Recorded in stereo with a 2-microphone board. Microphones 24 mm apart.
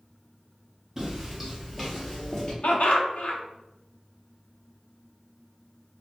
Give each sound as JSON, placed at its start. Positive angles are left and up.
{"t": 1.0, "sound": "footsteps", "side_deg": -20, "distance_m": 1.3}
{"t": 2.6, "sound": "laughter", "side_deg": 70, "distance_m": 0.6}